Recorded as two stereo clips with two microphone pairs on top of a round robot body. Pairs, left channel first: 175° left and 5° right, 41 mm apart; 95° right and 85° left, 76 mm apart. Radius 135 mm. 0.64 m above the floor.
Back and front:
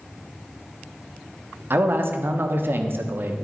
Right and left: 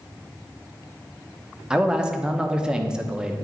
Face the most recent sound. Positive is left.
turn(degrees=10)